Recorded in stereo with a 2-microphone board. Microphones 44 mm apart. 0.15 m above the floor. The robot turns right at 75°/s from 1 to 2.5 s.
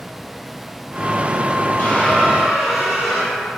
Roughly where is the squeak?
Behind left.